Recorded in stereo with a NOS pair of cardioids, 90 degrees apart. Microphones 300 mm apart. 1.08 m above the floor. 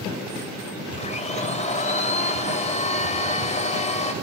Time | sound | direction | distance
1.0 | a blender | 25° left | 5.5 m